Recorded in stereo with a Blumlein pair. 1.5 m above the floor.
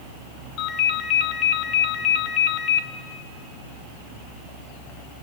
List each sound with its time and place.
0.6 s a ringtone: 40° left, 1.4 m